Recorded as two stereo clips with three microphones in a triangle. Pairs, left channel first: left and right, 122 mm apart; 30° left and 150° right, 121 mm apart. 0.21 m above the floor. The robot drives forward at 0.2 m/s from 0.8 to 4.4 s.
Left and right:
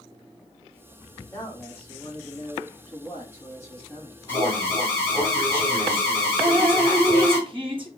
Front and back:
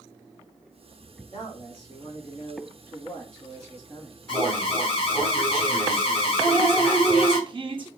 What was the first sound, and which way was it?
A man speaking, 35° left.